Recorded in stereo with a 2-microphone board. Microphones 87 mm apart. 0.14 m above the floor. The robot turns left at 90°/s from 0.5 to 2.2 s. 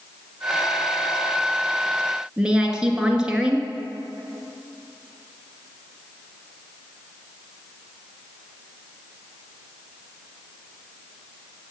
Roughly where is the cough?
No cough in this recording.